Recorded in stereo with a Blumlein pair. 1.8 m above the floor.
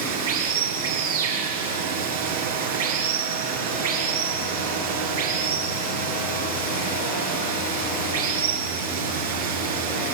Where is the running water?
65° right, 7 m.